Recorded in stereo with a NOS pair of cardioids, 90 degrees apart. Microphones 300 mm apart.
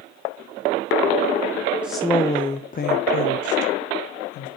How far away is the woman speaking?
About 1.0 m.